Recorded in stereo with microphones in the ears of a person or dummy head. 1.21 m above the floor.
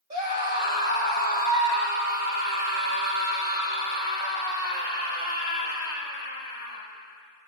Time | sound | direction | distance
0.1 | a scream | 45° right (ahead or behind) | 6.5 m